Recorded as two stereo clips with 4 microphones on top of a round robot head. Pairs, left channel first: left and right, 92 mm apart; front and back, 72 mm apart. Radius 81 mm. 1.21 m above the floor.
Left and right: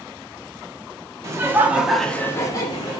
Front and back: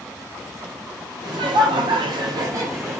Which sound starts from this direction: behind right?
Laughter, at 1.2 s.